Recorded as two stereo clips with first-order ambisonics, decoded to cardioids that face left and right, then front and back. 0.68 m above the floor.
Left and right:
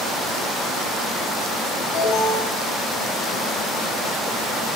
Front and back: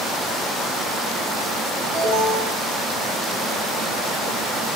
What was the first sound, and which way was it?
An alarm, 145° left.